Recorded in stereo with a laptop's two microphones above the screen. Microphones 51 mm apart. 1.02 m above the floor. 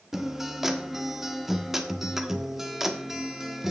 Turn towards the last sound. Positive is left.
turn(degrees=-5)  # may be behind; listen again after turning